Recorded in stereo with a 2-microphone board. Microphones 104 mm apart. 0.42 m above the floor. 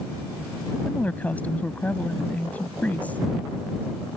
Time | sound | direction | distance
0.8 | a woman speaking | 15° left (ahead or behind) | ?